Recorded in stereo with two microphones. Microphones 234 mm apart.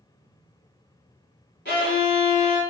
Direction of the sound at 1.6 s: 50° left (ahead or behind).